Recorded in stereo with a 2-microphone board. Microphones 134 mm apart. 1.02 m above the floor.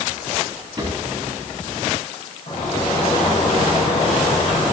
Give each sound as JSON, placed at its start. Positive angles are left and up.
{"t": 0.8, "sound": "a drawer", "side_deg": -30, "distance_m": 5.5}
{"t": 2.5, "sound": "a sliding door", "side_deg": 60, "distance_m": 4.0}